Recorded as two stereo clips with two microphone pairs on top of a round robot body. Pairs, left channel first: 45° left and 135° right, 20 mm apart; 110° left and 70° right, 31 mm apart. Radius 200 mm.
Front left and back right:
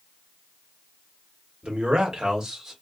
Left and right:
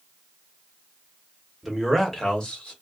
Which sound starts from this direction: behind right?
A man speaking, at 1.6 s.